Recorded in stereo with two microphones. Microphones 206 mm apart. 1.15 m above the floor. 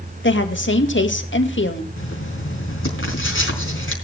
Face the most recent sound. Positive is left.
turn(degrees=75)  # may be behind; listen again after turning